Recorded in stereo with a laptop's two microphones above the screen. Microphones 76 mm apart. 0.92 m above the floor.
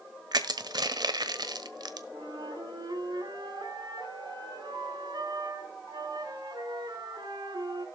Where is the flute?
75° right (ahead or behind), 5 m.